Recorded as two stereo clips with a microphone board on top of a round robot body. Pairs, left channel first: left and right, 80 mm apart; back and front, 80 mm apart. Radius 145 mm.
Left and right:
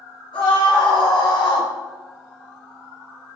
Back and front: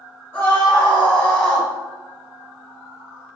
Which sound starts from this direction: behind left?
A scream, at 0.3 s.